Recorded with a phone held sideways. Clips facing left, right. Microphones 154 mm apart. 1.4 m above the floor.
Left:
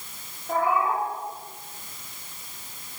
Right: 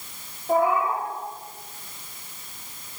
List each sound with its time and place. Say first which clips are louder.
0.5 s a cat meowing: right 3 dB; 15° right (ahead or behind), 5 m